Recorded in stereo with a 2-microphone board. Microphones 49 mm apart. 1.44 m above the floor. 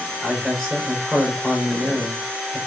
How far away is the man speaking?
About 5 m.